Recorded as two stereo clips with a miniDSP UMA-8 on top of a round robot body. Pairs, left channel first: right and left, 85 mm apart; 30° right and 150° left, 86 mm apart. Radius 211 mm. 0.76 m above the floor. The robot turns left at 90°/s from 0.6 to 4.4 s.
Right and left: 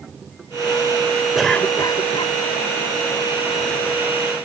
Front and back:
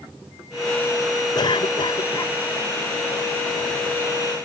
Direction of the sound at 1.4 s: 5° left.